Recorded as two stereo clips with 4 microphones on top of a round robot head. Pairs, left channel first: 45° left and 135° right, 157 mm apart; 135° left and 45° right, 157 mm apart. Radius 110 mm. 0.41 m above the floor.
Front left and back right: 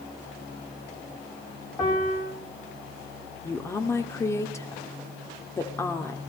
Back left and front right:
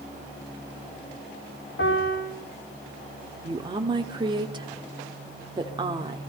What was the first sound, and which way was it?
A piano, 115° left.